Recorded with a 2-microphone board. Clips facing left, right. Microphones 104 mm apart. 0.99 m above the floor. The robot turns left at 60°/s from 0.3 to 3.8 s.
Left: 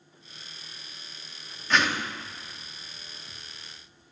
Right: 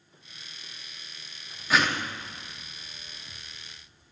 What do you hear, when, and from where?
1.7 s a whoosh: 5° right (ahead or behind), 0.9 m; by 2.1 s 15° left (ahead or behind), 0.9 m